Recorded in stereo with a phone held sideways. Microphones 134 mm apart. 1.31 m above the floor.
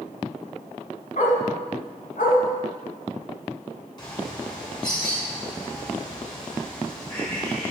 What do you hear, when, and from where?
1.2 s a dog barking: 65° left (ahead or behind), 3 m
4.0 s a bird: 30° left (ahead or behind), 6 m